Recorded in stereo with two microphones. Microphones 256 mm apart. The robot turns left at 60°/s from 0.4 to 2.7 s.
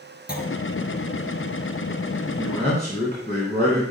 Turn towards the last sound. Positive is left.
turn(degrees=150)